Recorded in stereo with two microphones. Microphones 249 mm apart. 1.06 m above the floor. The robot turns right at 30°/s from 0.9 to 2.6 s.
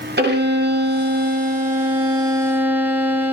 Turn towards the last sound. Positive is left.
turn(degrees=-10)